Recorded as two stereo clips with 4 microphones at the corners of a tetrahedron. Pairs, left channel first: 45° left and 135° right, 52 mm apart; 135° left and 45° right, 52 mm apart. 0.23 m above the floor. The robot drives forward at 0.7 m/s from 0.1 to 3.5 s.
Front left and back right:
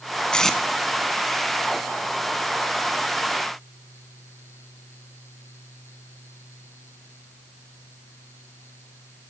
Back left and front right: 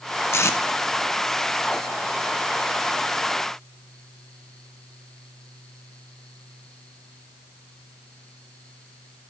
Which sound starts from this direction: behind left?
Tape being pulled, at 0.3 s.